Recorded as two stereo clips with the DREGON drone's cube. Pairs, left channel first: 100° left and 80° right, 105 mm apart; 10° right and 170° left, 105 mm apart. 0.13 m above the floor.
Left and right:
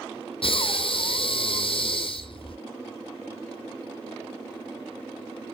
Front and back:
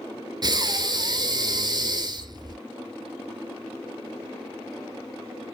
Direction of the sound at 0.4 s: 125° left.